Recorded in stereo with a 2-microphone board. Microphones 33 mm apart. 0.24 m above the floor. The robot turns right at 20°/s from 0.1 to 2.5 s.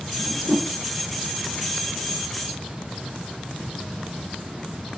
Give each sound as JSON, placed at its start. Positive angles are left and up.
{"t": 0.2, "sound": "a whoosh", "side_deg": 45, "distance_m": 2.5}